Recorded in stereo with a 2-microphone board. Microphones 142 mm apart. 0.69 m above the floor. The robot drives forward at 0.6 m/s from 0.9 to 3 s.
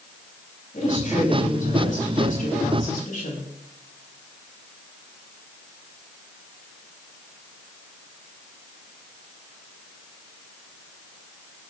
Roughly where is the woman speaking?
Left.